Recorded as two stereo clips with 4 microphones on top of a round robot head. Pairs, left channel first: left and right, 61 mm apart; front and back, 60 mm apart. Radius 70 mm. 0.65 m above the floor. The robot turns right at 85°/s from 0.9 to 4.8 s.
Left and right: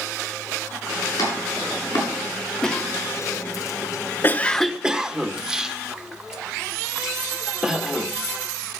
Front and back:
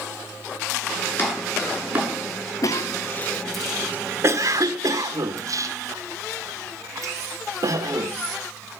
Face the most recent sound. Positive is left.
turn(degrees=-170)